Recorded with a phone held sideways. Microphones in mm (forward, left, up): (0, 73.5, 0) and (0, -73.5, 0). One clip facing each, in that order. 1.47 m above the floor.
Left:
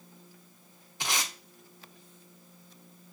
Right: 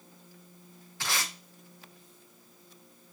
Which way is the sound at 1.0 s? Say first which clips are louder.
Left 1 dB; 15° left (ahead or behind).